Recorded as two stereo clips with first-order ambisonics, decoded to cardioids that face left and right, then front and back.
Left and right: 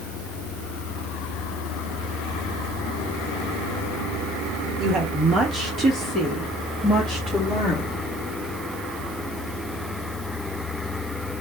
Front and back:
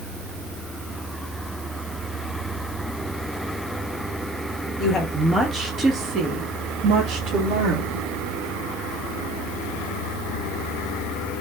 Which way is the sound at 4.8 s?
40° right.